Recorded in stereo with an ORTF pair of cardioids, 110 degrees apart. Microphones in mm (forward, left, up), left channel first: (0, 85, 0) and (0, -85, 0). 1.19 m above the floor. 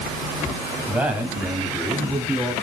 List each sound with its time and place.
0.9 s a man speaking: 10° right, 6 m